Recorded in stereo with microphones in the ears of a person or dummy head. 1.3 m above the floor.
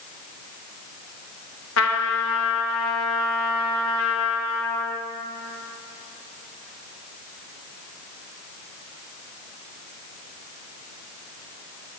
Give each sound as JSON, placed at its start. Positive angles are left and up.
{"t": 1.8, "sound": "a trumpet", "side_deg": 70, "distance_m": 1.1}